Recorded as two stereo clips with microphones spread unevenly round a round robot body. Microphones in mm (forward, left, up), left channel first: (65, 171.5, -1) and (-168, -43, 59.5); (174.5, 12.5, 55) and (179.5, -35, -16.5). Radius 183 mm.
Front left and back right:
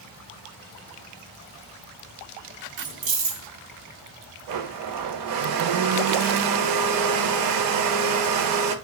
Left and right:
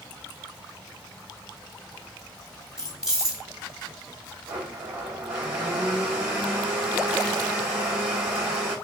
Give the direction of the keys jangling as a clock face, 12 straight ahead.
4 o'clock.